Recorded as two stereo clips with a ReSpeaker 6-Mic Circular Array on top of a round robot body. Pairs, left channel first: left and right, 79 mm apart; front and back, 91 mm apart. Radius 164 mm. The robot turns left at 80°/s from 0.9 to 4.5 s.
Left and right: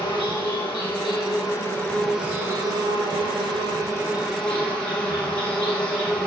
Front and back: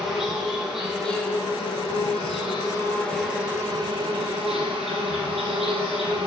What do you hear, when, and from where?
0.0 s an insect: 95° left, 4.5 m; by 6.3 s 170° left, 4.5 m